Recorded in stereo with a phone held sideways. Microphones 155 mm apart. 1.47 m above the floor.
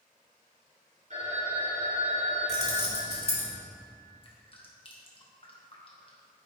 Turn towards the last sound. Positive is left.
turn(degrees=35)  # may be behind; listen again after turning